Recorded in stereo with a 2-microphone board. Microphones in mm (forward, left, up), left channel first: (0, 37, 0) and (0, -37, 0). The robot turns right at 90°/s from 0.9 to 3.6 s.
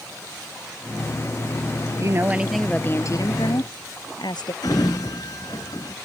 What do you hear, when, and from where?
2.0 s a woman speaking: 50° right; by 4.5 s 95° left
4.6 s a sliding door: 60° left (ahead or behind)